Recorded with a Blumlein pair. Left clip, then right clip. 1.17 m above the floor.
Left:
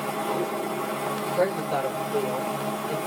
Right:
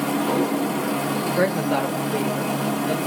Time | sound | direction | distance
0.0 | a machine running | 60° right | 0.7 m
1.4 | a woman speaking | 30° right | 1.1 m